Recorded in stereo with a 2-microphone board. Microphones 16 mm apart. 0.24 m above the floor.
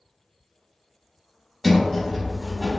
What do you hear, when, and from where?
1.6 s a sliding door: 15° left (ahead or behind), 0.8 m